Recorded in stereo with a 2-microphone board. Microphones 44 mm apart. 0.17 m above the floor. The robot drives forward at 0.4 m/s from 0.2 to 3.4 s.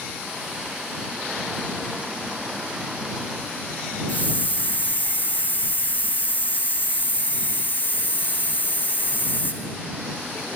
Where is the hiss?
45° left (ahead or behind), 1.4 m.